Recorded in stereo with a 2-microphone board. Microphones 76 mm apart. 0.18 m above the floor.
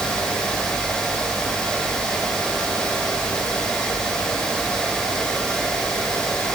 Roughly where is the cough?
No cough in this recording.